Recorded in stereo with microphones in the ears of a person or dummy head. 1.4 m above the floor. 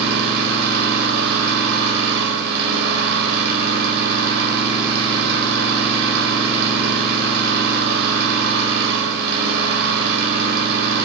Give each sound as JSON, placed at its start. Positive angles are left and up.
{"t": 0.0, "sound": "an engine running", "side_deg": -60, "distance_m": 6.5}